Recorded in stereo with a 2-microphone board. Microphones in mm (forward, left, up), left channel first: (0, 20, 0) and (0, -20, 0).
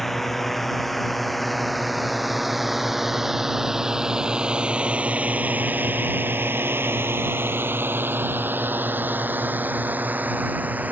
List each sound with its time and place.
0.0 s a drone: 5° left (ahead or behind); by 10.9 s 40° right (ahead or behind)